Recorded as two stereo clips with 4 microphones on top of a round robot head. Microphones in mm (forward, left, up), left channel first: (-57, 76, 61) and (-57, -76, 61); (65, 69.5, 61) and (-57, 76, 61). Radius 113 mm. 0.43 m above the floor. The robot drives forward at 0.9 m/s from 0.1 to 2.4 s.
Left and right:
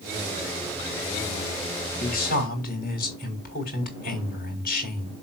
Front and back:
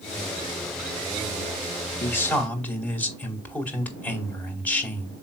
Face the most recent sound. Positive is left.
turn(degrees=75)